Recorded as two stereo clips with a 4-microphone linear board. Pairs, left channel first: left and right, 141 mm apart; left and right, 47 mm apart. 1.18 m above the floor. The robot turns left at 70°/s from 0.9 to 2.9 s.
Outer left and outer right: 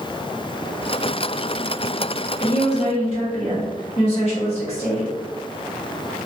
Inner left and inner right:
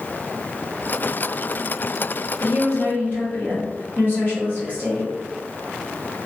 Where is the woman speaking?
80° left, 1.7 m; by 5.1 s 45° left, 1.7 m.